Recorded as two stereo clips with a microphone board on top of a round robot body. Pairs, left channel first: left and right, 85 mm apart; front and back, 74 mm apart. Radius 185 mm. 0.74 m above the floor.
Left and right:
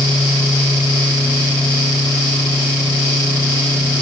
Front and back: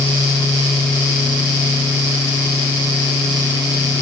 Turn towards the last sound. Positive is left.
No sound to turn to.